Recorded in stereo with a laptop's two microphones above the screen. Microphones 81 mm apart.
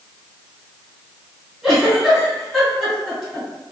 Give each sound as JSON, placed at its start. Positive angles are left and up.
{"t": 1.6, "sound": "a giggle", "side_deg": 0, "distance_m": 1.8}